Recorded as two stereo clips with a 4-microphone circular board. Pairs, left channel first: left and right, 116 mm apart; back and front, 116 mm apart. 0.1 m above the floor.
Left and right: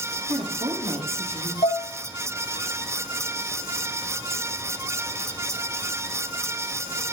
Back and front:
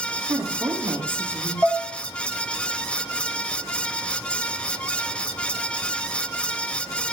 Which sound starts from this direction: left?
Dishes clattering, at 1.6 s.